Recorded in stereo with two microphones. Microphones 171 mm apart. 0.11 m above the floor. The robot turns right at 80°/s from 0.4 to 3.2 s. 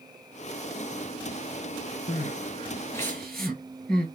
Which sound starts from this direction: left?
Crying, at 2.1 s.